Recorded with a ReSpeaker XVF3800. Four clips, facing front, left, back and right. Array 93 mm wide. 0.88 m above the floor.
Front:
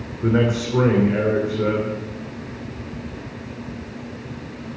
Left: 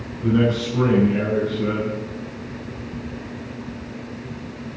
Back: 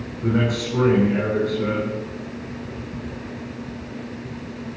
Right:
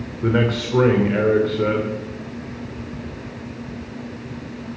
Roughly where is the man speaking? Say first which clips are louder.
Left 1 dB, front 3 dB; ahead right.